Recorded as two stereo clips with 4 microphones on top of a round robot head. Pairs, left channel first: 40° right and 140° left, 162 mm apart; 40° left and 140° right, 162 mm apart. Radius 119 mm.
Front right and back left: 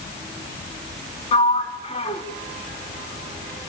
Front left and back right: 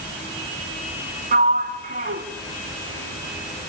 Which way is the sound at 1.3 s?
100° right.